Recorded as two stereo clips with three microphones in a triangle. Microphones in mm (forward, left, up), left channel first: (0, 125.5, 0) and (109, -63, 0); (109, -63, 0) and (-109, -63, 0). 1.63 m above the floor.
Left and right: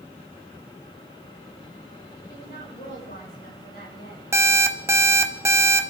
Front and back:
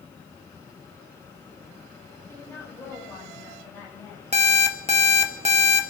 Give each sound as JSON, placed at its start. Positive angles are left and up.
{"t": 2.3, "sound": "a woman speaking", "azimuth_deg": 75, "distance_m": 9.5}
{"t": 4.3, "sound": "an alarm clock", "azimuth_deg": -135, "distance_m": 1.1}